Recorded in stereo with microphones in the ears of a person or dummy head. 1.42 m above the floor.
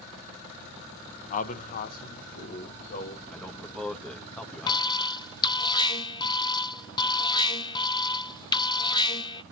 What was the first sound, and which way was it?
A man speaking, 45° left (ahead or behind).